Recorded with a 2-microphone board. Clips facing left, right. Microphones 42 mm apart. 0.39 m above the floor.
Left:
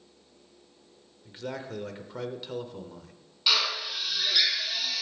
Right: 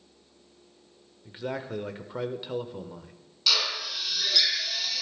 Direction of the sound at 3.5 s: 20° left (ahead or behind).